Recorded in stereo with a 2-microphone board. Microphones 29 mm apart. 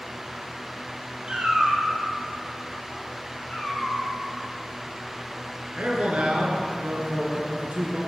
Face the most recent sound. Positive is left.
turn(degrees=-60)  # may be behind; listen again after turning